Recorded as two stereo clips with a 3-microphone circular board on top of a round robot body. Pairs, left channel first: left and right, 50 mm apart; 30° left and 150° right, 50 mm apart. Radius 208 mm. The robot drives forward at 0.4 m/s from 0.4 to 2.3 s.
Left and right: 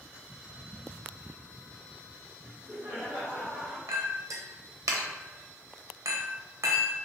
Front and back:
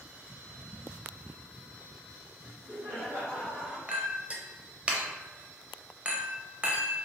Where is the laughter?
125° right, 1.5 m.